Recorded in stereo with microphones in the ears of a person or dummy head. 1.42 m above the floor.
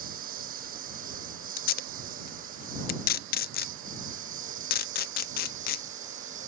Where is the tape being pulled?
50° left (ahead or behind).